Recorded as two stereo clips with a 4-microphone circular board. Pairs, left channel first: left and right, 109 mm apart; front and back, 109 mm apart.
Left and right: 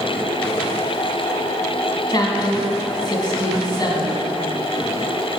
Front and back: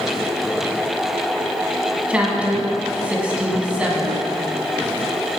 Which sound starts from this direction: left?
A woman speaking, at 2.1 s.